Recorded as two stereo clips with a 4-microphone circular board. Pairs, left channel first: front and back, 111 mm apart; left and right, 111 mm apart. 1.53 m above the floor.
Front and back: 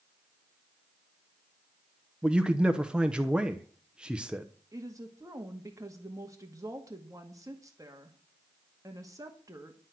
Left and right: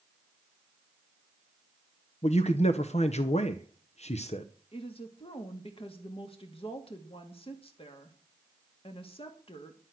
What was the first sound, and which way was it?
A man speaking, 100° left.